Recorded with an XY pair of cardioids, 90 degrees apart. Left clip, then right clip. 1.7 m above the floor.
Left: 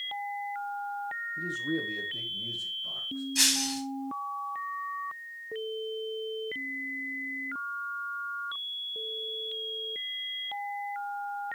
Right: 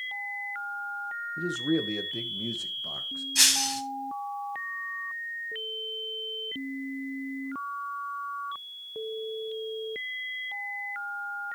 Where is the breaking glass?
25° right, 3.5 m.